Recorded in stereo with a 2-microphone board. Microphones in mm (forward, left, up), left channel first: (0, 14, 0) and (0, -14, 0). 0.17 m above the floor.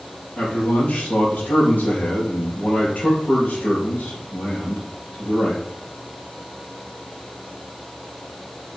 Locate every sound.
0.4 s a man speaking: 55° left (ahead or behind), 3.5 m